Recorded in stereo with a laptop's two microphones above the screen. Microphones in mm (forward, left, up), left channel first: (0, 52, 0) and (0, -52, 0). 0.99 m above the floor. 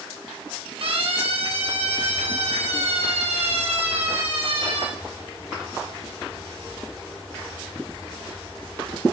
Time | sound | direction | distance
0.8 | a siren | 60° right (ahead or behind) | 5.5 m